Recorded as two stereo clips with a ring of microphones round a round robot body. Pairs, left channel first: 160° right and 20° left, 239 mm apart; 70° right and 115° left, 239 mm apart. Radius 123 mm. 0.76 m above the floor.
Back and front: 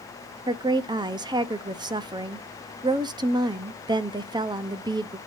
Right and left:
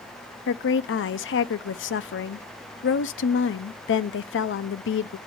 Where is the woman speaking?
45° right, 0.6 m.